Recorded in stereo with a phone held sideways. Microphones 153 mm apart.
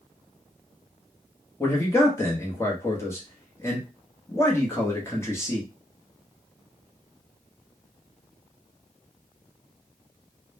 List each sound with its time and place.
1.6 s a man speaking: 15° left (ahead or behind), 0.8 m